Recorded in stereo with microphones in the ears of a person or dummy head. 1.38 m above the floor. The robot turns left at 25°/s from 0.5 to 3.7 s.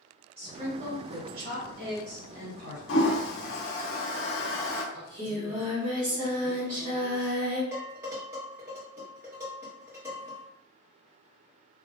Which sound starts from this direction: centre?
Dishes clattering, at 7.7 s.